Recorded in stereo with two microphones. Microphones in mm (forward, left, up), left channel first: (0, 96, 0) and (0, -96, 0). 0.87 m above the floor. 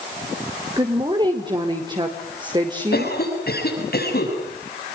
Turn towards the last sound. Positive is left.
turn(degrees=60)  # may be behind; listen again after turning